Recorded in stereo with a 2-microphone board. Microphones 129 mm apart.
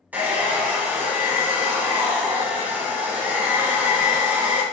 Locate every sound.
0.1 s a hair dryer: 15° right (ahead or behind), 0.9 m